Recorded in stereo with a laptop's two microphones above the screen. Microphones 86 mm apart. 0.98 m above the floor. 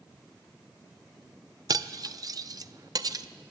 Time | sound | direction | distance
1.7 | cutlery clinking | 50° right (ahead or behind) | 0.5 m